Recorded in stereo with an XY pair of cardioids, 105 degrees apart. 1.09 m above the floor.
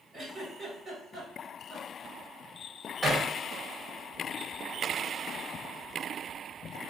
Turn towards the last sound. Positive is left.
turn(degrees=-20)